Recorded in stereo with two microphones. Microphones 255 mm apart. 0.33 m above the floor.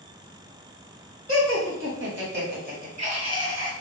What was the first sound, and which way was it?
Laughter, 55° right (ahead or behind).